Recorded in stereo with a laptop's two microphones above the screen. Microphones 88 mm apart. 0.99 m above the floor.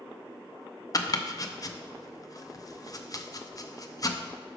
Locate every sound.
0.9 s chopping: 45° left (ahead or behind), 0.5 m